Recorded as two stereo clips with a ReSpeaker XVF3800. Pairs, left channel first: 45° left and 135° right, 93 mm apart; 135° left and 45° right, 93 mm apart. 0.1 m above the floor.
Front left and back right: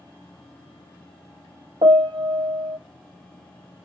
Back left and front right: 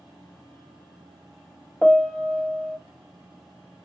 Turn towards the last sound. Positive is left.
turn(degrees=-145)